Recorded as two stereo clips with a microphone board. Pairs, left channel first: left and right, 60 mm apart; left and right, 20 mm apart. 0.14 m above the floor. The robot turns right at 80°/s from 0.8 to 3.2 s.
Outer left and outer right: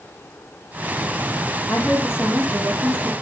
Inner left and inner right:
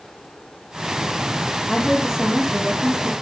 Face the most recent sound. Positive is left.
turn(degrees=-85)